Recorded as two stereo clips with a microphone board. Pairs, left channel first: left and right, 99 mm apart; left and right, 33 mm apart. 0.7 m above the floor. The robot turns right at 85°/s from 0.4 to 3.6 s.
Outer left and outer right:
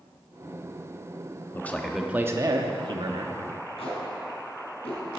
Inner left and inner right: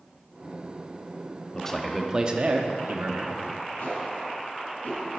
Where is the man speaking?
150° left, 0.8 m; by 3.4 s 55° right, 0.8 m.